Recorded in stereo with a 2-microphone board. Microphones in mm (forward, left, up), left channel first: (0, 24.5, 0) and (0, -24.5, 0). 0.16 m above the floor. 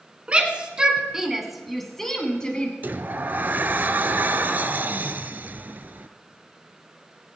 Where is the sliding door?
40° right (ahead or behind), 0.6 m.